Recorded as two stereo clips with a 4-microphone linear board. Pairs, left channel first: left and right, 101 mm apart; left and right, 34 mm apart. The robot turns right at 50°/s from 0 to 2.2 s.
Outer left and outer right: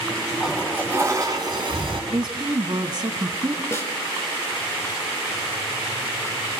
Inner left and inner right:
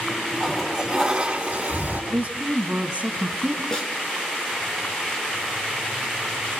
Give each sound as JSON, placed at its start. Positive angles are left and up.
{"t": 0.4, "sound": "a toilet flushing", "azimuth_deg": 180, "distance_m": 3.0}
{"t": 2.1, "sound": "a woman speaking", "side_deg": -45, "distance_m": 1.6}
{"t": 3.7, "sound": "a snare drum", "side_deg": 25, "distance_m": 3.5}